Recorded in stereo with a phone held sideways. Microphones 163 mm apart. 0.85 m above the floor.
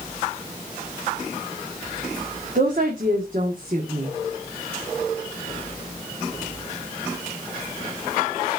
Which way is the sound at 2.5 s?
55° right (ahead or behind).